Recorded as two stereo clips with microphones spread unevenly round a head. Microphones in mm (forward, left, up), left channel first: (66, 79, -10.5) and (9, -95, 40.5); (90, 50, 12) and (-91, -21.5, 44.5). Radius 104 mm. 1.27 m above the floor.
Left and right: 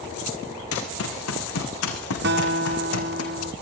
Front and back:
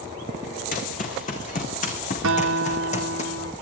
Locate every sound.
0.7 s running footsteps: 75° left, 5 m; by 3.2 s 80° left, 3 m
2.2 s a guitar: 135° right, 1.1 m